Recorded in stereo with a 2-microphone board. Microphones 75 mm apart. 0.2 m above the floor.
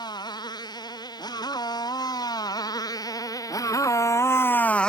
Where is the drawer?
No drawer in this recording.